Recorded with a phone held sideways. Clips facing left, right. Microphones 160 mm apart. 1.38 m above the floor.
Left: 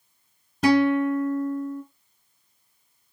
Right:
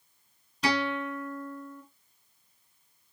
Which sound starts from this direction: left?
A guitar, at 0.6 s.